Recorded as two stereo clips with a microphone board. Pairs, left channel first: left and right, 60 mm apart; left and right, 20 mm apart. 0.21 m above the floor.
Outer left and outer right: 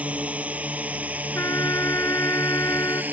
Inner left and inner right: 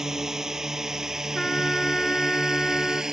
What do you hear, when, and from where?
0.0 s a drone: 25° right (ahead or behind); by 3.1 s 30° right (ahead or behind)
1.4 s a trumpet: 50° left (ahead or behind)